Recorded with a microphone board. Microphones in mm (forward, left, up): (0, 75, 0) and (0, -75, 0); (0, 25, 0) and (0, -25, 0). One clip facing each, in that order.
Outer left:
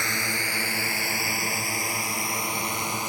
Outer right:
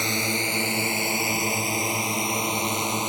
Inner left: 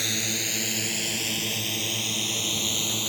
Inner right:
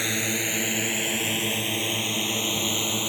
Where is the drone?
20° right (ahead or behind).